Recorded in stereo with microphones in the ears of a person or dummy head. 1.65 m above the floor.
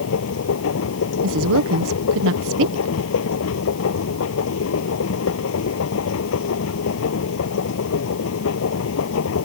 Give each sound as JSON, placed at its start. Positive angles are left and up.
{"t": 0.0, "sound": "a machine running", "side_deg": 75}
{"t": 1.2, "sound": "a woman speaking", "side_deg": -75}